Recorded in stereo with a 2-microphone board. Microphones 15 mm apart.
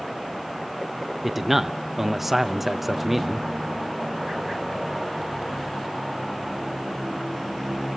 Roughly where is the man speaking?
Centre.